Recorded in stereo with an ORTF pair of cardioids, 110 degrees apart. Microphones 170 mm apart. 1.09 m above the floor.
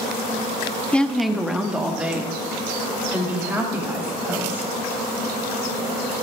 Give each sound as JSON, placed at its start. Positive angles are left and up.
{"t": 0.9, "sound": "a woman speaking", "azimuth_deg": 10, "distance_m": 0.7}